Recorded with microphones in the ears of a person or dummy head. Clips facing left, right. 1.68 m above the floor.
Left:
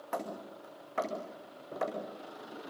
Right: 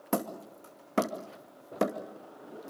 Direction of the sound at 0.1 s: 55° right (ahead or behind).